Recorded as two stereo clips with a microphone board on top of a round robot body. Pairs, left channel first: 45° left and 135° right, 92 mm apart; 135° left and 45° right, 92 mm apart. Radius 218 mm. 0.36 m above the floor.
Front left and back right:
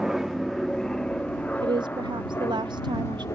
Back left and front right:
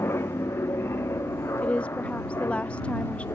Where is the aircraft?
145° left; by 3.4 s 85° left.